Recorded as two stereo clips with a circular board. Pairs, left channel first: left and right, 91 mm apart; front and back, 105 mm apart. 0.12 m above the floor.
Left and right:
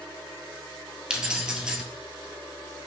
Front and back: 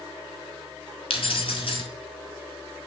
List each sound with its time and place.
1.1 s keys jangling: 10° right, 1.6 m